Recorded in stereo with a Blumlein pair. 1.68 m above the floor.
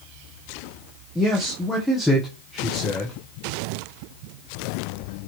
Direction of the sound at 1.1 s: Straight ahead.